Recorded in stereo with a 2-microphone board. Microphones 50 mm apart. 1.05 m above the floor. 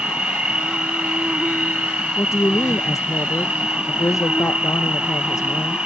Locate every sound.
0.0 s an insect: 20° right (ahead or behind)
2.2 s a woman speaking: 75° left (ahead or behind)